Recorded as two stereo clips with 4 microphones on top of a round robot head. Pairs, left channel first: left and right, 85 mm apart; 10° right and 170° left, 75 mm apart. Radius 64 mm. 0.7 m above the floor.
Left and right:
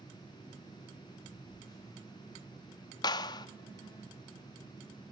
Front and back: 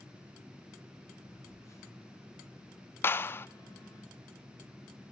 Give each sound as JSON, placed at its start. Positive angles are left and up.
{"t": 1.3, "sound": "a phone buzzing", "azimuth_deg": 40, "distance_m": 4.0}
{"t": 3.0, "sound": "a clap", "azimuth_deg": 50, "distance_m": 0.5}